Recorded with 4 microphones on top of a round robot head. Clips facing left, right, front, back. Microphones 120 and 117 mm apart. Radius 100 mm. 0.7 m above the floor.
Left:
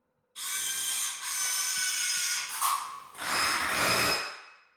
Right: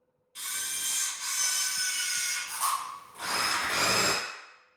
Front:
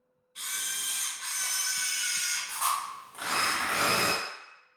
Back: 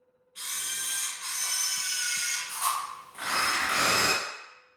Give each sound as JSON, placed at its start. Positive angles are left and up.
{"t": 0.3, "sound": "a camera shutter", "azimuth_deg": -70, "distance_m": 0.9}
{"t": 3.1, "sound": "tearing paper", "azimuth_deg": 70, "distance_m": 0.8}